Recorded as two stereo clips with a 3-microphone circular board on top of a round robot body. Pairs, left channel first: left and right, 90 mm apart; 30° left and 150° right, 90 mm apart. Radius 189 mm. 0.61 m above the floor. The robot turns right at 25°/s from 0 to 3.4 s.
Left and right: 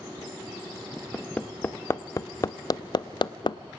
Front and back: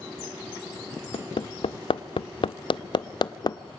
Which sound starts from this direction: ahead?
Hammering, at 1.1 s.